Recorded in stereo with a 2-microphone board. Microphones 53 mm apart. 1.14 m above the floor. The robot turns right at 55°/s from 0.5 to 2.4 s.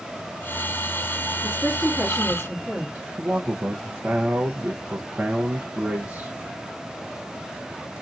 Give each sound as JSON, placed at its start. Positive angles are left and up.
{"t": 1.4, "sound": "a woman speaking", "azimuth_deg": 135, "distance_m": 2.0}
{"t": 3.2, "sound": "a man speaking", "side_deg": -30, "distance_m": 0.7}